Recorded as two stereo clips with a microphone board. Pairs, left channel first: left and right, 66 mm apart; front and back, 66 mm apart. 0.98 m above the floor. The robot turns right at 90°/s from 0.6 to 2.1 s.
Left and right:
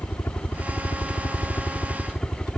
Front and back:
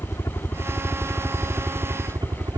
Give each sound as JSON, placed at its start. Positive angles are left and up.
{"t": 0.0, "sound": "a helicopter", "azimuth_deg": 35}